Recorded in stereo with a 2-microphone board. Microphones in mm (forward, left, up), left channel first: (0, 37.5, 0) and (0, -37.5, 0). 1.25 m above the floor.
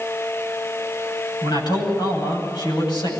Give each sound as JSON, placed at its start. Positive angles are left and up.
{"t": 1.4, "sound": "a man speaking", "side_deg": 75, "distance_m": 9.5}